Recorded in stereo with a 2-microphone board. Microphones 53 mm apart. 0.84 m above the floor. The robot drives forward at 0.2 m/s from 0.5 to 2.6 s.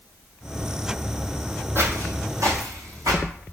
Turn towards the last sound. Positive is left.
turn(degrees=-75)  # may be behind; listen again after turning